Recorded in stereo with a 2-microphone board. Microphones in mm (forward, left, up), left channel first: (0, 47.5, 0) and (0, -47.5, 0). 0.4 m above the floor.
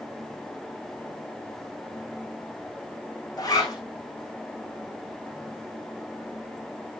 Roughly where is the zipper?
Left.